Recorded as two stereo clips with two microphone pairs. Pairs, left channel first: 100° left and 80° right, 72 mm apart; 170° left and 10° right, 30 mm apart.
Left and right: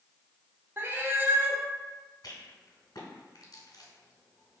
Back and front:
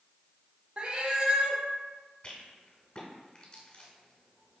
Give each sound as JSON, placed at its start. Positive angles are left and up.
{"t": 0.8, "sound": "a cat meowing", "azimuth_deg": -40, "distance_m": 0.5}
{"t": 2.2, "sound": "a rattle", "azimuth_deg": 125, "distance_m": 1.1}